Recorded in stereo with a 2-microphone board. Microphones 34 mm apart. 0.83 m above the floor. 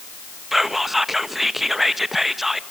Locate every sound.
0.5 s whispering: 5° right (ahead or behind), 0.9 m